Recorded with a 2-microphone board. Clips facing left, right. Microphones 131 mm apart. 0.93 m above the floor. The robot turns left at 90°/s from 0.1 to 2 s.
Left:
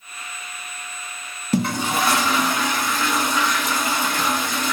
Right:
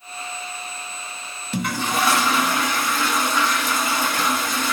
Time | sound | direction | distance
1.5 | a toilet flushing | 40° left | 1.0 m